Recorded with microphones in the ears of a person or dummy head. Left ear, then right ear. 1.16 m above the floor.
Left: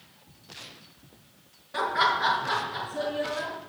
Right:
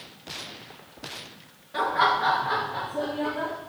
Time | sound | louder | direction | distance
1.7 | laughter | right 2 dB | 15° left (ahead or behind) | 1.2 m